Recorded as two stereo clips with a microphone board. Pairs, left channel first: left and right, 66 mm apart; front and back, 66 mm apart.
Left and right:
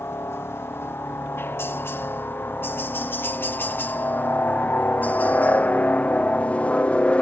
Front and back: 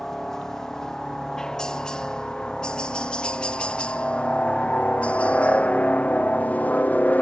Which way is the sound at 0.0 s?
80° left.